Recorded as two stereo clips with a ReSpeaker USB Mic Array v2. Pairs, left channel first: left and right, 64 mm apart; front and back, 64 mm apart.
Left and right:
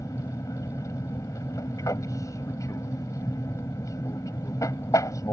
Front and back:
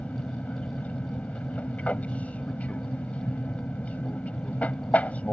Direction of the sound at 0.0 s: 65° left.